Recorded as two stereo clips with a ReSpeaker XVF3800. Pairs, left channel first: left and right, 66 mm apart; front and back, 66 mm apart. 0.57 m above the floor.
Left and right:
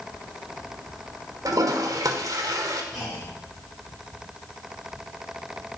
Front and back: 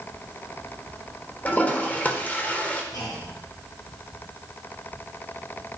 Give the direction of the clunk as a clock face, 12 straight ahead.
12 o'clock.